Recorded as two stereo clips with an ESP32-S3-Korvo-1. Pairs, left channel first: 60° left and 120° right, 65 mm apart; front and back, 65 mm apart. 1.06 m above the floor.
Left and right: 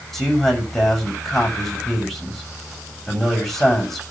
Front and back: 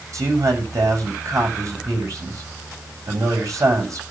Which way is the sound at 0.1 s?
145° left.